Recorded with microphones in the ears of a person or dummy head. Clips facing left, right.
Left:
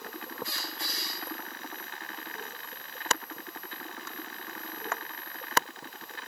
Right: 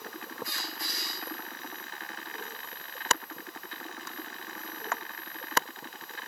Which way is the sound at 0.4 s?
25° left (ahead or behind).